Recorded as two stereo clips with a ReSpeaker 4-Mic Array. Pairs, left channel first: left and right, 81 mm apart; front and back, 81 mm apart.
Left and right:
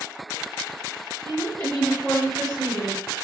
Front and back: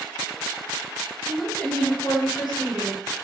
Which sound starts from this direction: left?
A woman speaking, at 1.2 s.